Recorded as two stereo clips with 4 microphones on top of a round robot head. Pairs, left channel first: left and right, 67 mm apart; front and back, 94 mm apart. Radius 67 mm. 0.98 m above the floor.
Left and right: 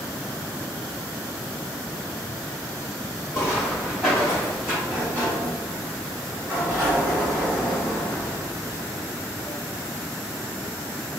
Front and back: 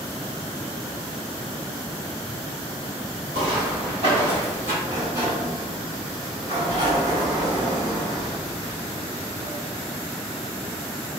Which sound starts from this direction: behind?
Footsteps, at 3.3 s.